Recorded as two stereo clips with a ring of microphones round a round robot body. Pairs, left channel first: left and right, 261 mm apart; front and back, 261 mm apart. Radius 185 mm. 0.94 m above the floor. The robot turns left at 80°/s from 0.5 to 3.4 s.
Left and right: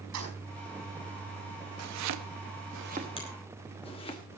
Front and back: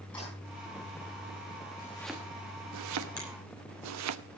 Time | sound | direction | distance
0.1 | keys jangling | 85° right | 5.5 m
1.8 | chopping | 65° right | 0.9 m
3.2 | a finger snap | 20° left | 6.5 m